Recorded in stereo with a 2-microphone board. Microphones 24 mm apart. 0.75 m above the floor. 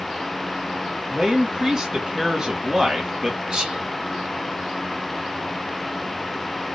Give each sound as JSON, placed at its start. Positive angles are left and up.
{"t": 1.1, "sound": "a man speaking", "side_deg": -30, "distance_m": 1.2}
{"t": 3.5, "sound": "whispering", "side_deg": -30, "distance_m": 1.4}